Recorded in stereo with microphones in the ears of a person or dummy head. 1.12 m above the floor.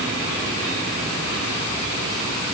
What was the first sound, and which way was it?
Only background noise.